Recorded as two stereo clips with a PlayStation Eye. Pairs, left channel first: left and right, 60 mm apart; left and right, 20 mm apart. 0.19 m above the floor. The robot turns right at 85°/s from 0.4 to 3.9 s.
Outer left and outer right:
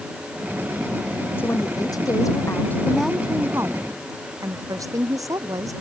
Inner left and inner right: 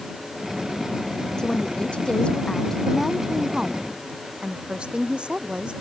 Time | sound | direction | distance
1.4 | a woman speaking | 35° left | ?